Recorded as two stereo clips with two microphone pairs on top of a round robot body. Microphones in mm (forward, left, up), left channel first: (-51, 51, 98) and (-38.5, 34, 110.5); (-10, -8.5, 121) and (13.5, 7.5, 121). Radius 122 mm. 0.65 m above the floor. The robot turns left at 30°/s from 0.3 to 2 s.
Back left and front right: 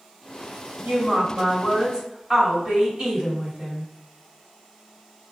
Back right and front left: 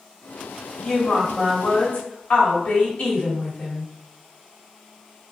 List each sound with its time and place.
0.8 s a woman speaking: 90° right, 1.9 m; by 3.9 s 125° right, 1.9 m